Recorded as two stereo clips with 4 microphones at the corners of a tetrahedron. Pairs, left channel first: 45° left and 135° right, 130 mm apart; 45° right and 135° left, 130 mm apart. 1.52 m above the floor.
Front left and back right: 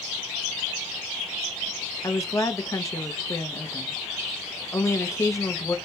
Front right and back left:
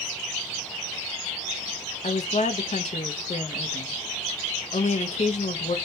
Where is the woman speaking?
20° right, 0.6 m.